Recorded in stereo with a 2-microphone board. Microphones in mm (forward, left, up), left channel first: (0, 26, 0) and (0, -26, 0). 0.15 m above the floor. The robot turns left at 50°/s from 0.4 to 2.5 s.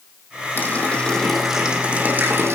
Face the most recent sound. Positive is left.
turn(degrees=-55)